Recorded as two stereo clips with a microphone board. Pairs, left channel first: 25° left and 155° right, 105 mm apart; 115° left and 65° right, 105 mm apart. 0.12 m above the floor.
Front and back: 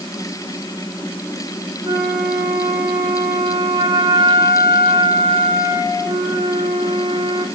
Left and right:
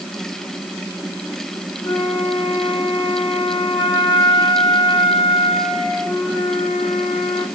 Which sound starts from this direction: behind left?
A flute, at 1.8 s.